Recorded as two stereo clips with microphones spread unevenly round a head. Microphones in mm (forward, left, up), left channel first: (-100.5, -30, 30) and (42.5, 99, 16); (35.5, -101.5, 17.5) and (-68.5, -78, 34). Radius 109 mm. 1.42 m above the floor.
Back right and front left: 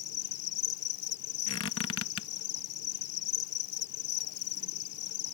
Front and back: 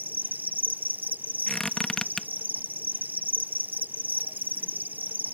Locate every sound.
0.0 s an insect: 115° right
1.5 s a squeak: 100° right